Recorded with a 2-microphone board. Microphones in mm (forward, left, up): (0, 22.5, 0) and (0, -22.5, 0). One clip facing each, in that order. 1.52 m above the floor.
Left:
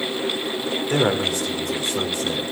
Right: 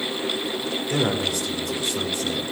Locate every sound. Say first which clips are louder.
0.9 s a man speaking: left 3 dB; 35° left (ahead or behind), 4 m